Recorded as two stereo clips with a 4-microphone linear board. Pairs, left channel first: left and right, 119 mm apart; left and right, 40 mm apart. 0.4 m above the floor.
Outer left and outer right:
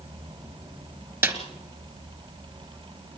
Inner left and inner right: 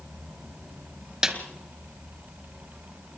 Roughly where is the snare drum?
Right.